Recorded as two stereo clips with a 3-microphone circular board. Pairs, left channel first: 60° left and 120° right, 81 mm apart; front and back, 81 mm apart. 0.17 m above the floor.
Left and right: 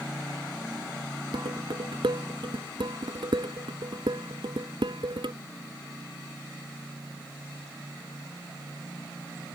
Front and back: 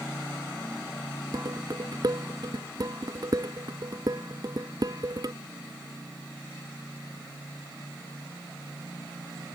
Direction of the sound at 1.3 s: 140° right.